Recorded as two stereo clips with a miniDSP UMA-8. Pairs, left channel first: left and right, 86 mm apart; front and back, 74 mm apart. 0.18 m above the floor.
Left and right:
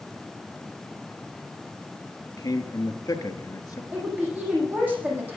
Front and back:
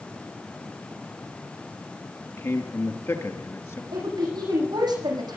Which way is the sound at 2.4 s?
50° left.